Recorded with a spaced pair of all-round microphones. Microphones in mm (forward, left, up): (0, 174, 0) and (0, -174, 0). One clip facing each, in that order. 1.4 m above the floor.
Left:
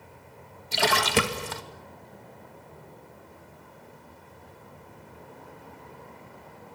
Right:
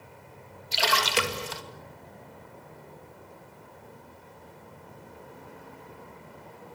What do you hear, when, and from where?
0.7 s a splash: 60° left (ahead or behind), 2 m